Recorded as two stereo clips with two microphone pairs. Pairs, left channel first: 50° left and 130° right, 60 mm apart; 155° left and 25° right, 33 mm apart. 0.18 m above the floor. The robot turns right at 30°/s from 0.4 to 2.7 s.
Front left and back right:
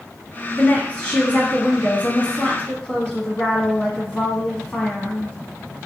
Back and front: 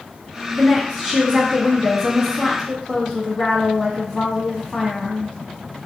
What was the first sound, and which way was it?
A woman speaking, 30° left.